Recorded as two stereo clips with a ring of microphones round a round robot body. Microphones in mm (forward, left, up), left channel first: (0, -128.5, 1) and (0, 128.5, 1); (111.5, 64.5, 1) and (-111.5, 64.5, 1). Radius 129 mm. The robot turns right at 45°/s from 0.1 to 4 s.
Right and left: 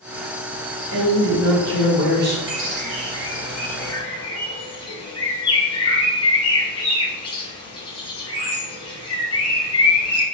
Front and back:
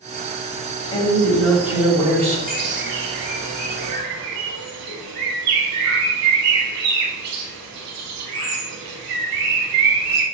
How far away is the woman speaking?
About 1.6 m.